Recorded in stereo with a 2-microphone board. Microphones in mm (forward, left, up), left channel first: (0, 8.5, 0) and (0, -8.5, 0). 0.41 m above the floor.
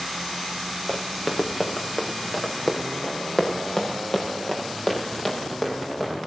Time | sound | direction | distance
0.9 | running footsteps | 30° left (ahead or behind) | 4 m